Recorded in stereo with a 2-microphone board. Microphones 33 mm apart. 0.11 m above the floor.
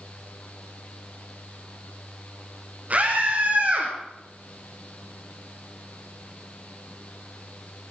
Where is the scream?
50° right (ahead or behind), 4.5 m; by 3.9 s 45° right (ahead or behind), 4 m.